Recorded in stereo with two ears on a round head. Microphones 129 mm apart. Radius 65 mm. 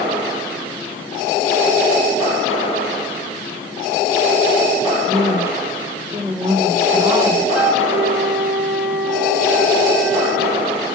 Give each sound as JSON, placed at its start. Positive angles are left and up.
{"t": 5.1, "sound": "a woman speaking", "side_deg": -20, "distance_m": 1.8}
{"t": 7.5, "sound": "a flute", "side_deg": -5, "distance_m": 2.5}